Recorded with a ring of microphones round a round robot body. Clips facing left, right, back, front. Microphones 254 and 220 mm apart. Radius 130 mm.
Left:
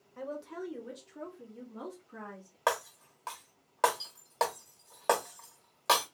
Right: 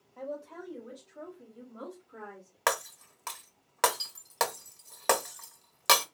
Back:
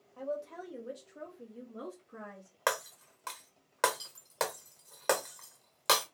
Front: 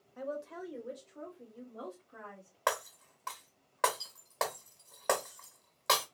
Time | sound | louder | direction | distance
0.2 | a woman speaking | left 1 dB, back 1 dB | 45° left | 1.0 m
2.7 | breaking glass | even, back 1 dB | 135° right | 0.7 m